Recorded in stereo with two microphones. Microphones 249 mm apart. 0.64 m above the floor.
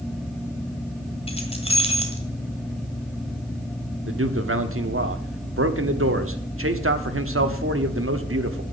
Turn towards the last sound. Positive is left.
turn(degrees=-60)  # may be behind; listen again after turning